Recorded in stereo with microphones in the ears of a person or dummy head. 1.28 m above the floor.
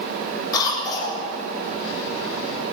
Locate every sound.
0.5 s a cough: 20° left (ahead or behind), 8 m